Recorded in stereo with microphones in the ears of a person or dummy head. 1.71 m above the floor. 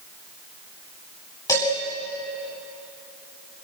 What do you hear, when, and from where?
1.5 s dishes clattering: 20° left (ahead or behind), 8 m